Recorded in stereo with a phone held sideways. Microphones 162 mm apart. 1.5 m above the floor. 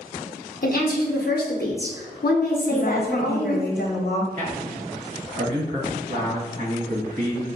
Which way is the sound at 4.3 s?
60° right (ahead or behind).